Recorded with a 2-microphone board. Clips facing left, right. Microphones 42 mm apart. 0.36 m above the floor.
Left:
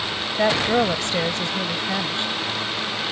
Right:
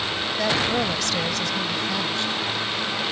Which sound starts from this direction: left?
A woman speaking, at 0.4 s.